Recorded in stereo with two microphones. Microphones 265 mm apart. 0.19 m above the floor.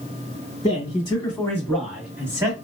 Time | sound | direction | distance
0.6 | a man speaking | 25° left (ahead or behind) | 1.7 m